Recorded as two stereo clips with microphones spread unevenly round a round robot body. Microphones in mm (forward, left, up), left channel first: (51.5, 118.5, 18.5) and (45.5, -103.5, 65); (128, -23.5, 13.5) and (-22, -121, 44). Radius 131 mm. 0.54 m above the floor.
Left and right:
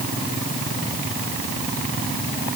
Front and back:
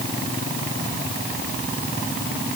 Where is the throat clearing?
I don't hear throat clearing.